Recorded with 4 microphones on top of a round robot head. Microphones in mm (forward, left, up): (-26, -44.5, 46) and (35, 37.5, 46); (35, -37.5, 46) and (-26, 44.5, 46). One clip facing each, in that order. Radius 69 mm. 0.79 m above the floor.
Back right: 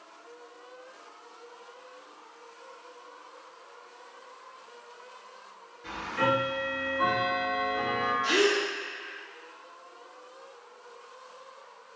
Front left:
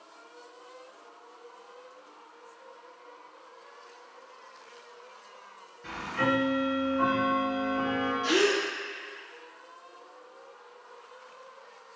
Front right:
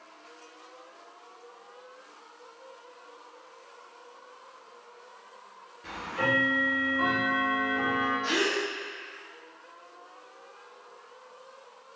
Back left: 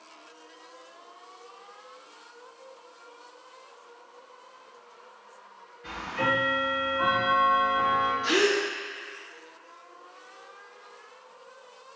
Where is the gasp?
50° left, 1.6 m.